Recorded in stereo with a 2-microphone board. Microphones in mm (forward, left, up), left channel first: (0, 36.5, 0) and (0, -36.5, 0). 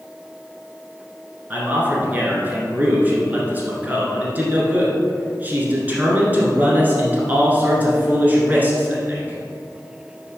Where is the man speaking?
25° right (ahead or behind), 1.5 m.